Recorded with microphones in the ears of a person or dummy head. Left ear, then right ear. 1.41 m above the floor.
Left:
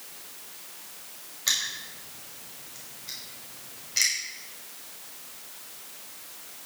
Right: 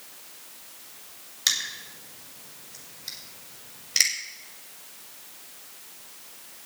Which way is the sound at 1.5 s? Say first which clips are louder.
Right 1 dB; 80° right.